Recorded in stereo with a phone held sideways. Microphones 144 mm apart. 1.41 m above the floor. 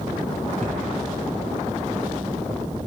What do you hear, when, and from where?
0.6 s a cupboard door: 55° right (ahead or behind), 1.7 m